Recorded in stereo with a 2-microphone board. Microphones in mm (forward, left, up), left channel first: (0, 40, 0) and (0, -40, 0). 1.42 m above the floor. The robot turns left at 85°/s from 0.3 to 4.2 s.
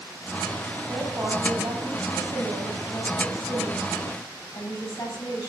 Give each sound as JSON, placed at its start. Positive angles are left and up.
{"t": 0.9, "sound": "a woman speaking", "azimuth_deg": 25, "distance_m": 8.0}